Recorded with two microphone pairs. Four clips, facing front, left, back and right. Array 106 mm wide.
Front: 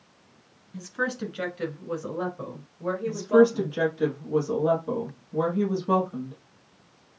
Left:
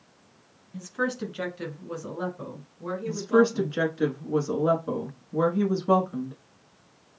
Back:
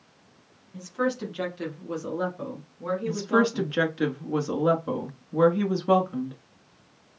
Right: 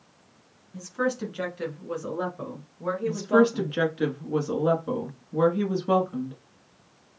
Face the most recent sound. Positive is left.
turn(degrees=-175)